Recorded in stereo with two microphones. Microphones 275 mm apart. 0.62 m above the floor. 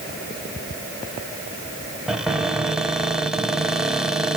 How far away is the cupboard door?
About 1.5 m.